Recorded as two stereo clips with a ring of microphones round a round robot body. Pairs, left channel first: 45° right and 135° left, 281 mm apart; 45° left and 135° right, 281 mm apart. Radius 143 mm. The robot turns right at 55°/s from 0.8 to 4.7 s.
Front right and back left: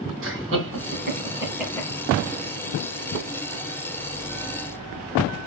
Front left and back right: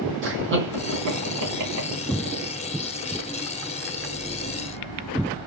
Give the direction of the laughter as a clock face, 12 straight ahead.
6 o'clock.